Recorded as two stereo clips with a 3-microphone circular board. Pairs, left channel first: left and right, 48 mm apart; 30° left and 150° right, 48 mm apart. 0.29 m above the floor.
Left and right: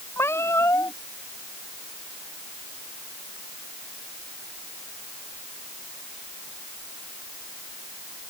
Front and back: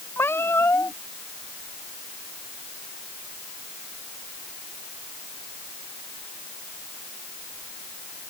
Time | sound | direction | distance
0.2 | a cat meowing | 65° left | ?